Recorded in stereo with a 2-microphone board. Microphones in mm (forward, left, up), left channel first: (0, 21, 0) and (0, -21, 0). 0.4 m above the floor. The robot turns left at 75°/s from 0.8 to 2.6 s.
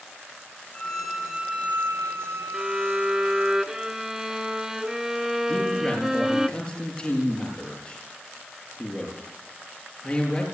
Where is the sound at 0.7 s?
25° left, 3 m; by 3.5 s 110° right, 3 m.